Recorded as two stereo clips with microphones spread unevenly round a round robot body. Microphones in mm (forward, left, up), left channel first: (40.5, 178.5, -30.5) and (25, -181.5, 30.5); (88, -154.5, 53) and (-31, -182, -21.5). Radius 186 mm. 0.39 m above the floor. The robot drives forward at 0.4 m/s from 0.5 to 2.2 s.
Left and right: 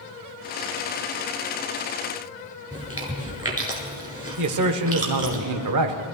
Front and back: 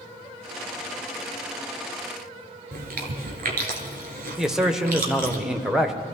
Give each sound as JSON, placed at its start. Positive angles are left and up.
{"t": 2.7, "sound": "chewing", "azimuth_deg": -170, "distance_m": 1.4}
{"t": 4.4, "sound": "a man speaking", "azimuth_deg": -125, "distance_m": 1.0}